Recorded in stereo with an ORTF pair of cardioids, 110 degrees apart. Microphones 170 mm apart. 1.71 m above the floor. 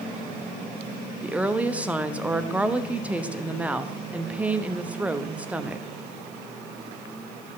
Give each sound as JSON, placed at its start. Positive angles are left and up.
{"t": 1.2, "sound": "a woman speaking", "azimuth_deg": -5, "distance_m": 0.8}